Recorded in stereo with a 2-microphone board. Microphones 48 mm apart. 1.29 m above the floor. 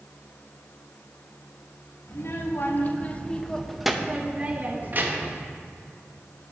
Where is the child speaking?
55° left (ahead or behind), 1.3 m; by 5.5 s 50° right (ahead or behind), 1.4 m.